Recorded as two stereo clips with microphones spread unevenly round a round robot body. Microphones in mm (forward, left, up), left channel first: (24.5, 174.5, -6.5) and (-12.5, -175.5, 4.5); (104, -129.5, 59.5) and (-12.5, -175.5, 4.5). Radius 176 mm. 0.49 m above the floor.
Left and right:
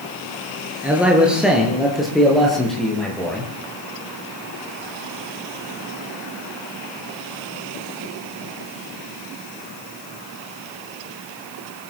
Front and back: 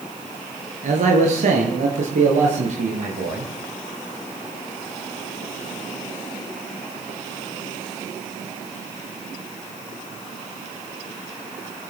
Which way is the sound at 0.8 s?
Straight behind.